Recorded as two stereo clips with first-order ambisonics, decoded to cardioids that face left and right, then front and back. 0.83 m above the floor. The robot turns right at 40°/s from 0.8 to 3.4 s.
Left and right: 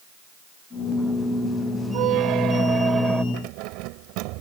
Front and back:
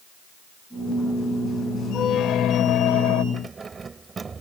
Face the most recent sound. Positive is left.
turn(degrees=-110)